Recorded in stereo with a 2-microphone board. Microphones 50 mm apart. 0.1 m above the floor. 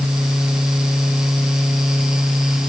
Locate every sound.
Only background noise.